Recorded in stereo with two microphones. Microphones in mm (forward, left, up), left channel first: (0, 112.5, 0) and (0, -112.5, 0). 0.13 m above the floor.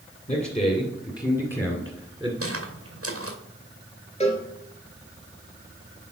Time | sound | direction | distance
0.3 | a man speaking | 30° left (ahead or behind) | 2.5 m
2.4 | footsteps | 80° right | 2 m
4.2 | a cowbell | 30° left (ahead or behind) | 2 m